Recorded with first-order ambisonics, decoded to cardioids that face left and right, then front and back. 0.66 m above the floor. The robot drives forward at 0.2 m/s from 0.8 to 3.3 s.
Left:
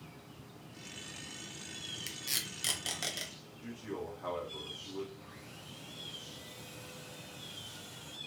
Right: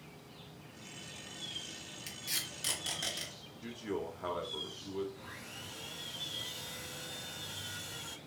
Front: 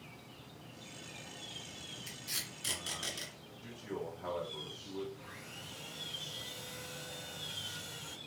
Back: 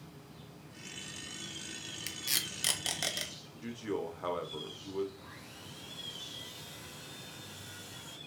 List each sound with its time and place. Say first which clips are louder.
2.1 s tape being pulled: even, back 7 dB; 160° left, 0.6 m; by 3.3 s 165° left, 0.8 m
3.6 s a man speaking: right 3 dB, back 5 dB; 160° right, 0.8 m
5.2 s sawing: right 4 dB, front 1 dB; 75° right, 0.6 m